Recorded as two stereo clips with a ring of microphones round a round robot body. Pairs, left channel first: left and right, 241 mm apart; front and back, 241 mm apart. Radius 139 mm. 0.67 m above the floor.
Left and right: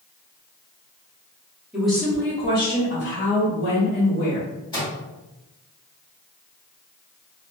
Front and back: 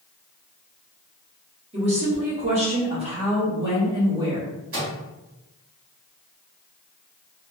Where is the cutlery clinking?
I don't hear cutlery clinking.